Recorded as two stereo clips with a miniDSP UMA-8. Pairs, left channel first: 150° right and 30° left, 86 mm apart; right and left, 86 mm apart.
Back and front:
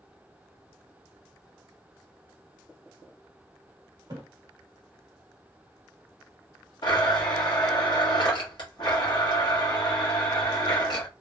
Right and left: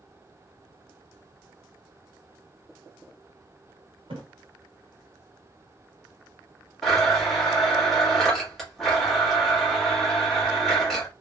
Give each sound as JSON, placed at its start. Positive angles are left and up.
{"t": 4.1, "sound": "a splash", "azimuth_deg": 75, "distance_m": 0.9}
{"t": 6.8, "sound": "a blender", "azimuth_deg": 180, "distance_m": 1.1}